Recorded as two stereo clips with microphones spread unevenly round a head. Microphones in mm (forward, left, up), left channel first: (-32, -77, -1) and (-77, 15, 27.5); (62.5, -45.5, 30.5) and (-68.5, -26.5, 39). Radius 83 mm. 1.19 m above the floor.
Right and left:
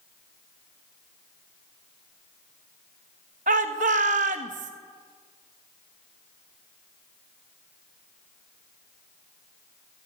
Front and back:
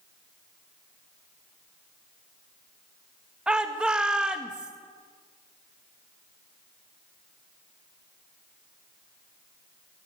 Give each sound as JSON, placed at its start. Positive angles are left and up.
{"t": 3.5, "sound": "a shout", "azimuth_deg": 85, "distance_m": 2.0}